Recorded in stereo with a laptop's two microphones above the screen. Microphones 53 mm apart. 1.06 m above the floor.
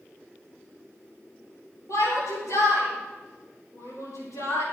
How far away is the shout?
About 5 m.